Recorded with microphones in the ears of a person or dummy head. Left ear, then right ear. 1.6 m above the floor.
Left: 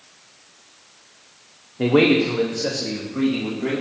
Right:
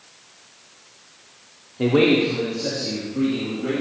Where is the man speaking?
5° left (ahead or behind), 0.6 m; by 3.8 s 55° left (ahead or behind), 2.5 m.